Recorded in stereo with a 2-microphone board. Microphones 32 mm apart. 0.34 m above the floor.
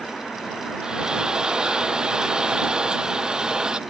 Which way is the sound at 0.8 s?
25° right (ahead or behind).